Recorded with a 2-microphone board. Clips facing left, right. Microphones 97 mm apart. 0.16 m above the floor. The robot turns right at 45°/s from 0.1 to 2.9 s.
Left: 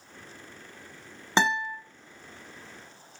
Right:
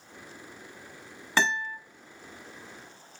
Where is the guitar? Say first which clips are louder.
Left 2 dB; 20° left (ahead or behind), 0.7 m; by 1.8 s 25° left (ahead or behind), 0.7 m.